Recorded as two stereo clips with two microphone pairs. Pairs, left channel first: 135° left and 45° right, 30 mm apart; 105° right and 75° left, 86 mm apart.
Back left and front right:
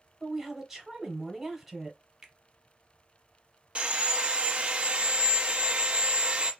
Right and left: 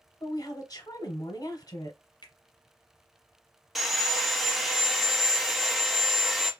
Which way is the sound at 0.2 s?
115° right.